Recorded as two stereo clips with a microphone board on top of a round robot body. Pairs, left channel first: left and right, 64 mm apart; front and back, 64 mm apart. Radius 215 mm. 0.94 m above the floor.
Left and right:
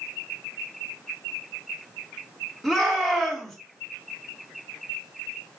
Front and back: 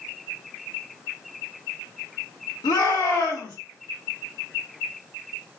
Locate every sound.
2.6 s a shout: straight ahead, 3 m